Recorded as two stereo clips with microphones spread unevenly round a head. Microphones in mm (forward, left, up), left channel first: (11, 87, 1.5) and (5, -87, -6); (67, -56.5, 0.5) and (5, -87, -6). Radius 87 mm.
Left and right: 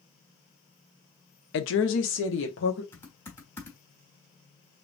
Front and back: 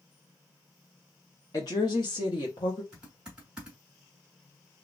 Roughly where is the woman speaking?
Left.